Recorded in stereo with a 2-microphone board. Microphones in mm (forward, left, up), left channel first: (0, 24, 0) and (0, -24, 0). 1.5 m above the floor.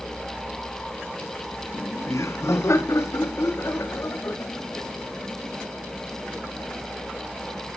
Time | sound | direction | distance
1.7 | laughter | 65° left (ahead or behind) | 0.6 m